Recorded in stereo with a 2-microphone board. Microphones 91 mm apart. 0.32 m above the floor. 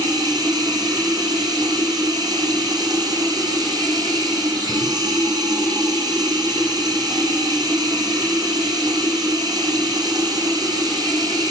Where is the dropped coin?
I don't hear a dropped coin.